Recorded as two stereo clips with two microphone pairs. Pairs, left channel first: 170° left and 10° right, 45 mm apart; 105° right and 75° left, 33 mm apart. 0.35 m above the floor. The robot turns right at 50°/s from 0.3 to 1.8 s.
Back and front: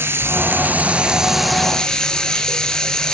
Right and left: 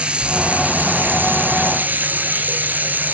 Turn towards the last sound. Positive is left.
turn(degrees=95)